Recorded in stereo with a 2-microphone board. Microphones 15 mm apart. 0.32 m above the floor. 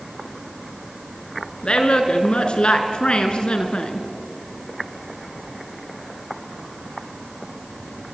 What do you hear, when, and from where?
1.6 s a woman speaking: 75° left (ahead or behind), 3.5 m